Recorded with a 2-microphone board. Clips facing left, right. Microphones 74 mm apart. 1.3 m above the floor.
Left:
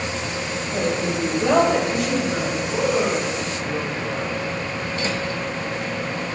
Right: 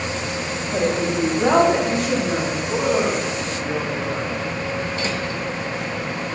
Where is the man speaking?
75° right (ahead or behind), 3 m.